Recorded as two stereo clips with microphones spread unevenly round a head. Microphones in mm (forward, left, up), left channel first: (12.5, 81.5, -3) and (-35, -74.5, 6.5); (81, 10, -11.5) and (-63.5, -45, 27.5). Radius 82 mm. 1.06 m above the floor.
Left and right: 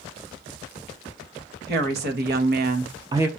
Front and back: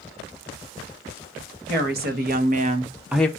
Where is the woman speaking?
135° right, 1.5 m; by 3.3 s 25° right, 0.6 m.